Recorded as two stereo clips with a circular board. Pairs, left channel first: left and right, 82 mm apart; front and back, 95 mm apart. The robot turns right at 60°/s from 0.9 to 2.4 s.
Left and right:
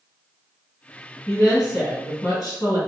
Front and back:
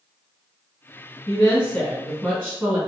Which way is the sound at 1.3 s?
30° left.